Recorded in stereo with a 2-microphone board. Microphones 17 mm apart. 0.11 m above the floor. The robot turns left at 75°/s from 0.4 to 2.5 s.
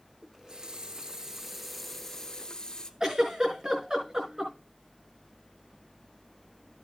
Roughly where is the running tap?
Right.